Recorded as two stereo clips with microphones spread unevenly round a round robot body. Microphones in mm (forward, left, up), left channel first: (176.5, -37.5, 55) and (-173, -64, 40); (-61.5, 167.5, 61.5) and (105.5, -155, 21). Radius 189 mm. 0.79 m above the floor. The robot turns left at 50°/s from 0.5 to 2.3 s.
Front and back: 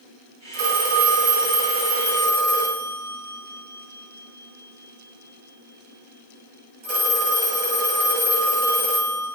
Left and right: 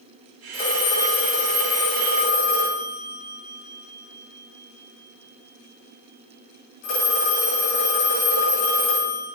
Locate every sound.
0.5 s a phone ringing: 165° right, 5 m; by 9.3 s 110° left, 5 m